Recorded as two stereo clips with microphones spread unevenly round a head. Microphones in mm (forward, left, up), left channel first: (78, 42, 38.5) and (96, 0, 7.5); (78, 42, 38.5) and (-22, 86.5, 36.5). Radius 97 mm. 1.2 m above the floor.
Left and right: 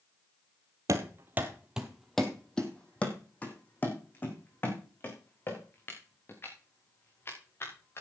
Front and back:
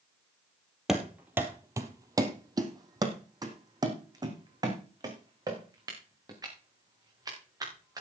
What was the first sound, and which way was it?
Running footsteps, 115° right.